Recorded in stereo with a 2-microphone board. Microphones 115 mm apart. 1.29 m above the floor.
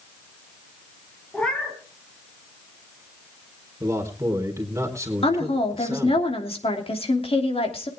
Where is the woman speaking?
55° left (ahead or behind), 2.5 m.